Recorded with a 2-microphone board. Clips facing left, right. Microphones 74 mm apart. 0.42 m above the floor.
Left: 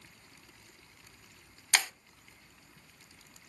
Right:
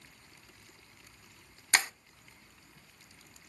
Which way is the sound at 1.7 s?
30° right (ahead or behind).